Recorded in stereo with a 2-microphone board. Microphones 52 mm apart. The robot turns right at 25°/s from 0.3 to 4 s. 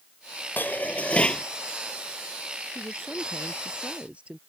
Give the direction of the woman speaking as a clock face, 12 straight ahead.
2 o'clock.